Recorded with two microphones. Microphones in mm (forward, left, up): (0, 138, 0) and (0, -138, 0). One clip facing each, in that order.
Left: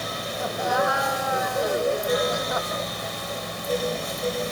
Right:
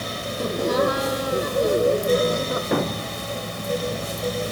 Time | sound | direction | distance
0.4 | laughter | 45° right (ahead or behind) | ?
2.7 | a thud | 80° right | ?